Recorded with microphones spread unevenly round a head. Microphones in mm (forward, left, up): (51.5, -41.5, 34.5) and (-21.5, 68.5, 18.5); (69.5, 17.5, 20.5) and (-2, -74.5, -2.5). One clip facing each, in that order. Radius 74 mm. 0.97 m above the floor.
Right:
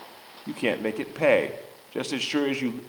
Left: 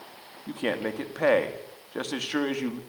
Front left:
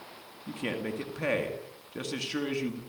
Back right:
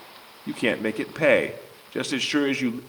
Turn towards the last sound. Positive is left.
turn(degrees=-140)